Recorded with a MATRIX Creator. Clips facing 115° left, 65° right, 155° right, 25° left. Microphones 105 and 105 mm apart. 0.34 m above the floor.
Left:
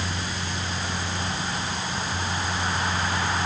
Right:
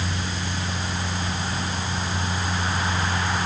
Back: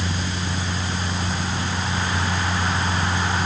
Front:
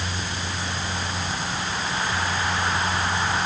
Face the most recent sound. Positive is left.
No sound to turn to.